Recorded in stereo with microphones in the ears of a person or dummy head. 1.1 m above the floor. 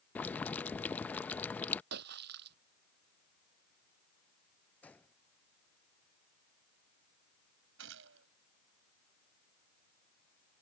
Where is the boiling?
15° left (ahead or behind).